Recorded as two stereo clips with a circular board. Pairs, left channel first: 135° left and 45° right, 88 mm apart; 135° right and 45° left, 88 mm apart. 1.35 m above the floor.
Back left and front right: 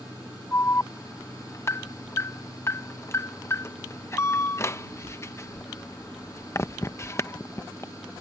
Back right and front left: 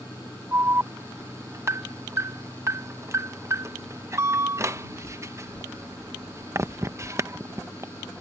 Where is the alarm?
90° left.